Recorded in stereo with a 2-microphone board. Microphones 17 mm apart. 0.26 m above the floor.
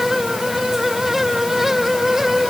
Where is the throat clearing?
No throat clearing in this recording.